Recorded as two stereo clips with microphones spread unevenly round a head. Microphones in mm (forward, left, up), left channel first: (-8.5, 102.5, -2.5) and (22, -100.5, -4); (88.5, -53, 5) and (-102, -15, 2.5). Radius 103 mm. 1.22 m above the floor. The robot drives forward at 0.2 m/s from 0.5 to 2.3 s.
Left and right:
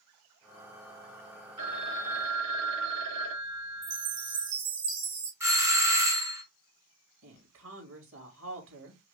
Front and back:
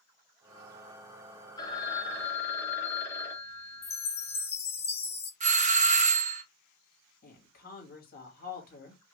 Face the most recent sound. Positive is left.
turn(degrees=-55)